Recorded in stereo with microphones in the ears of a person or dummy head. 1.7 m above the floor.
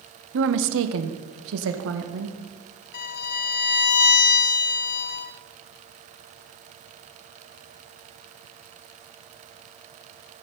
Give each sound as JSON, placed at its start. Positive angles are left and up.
{"t": 0.3, "sound": "a woman speaking", "side_deg": -65, "distance_m": 1.1}
{"t": 2.9, "sound": "a violin", "side_deg": 55, "distance_m": 0.6}